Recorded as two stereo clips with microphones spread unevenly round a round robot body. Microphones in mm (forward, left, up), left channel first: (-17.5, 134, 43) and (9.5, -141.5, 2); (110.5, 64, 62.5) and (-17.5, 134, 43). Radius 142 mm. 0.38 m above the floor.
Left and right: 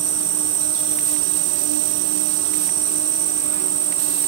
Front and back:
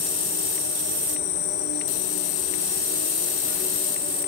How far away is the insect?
About 0.9 m.